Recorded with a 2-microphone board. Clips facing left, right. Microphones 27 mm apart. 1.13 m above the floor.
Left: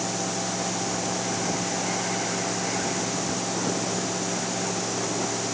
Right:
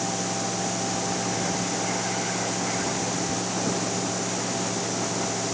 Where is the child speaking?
No child speaking in this recording.